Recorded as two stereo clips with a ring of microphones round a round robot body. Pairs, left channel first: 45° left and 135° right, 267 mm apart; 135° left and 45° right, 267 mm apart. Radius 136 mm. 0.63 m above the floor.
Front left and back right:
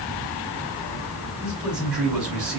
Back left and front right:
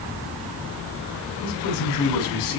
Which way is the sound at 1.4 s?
140° left.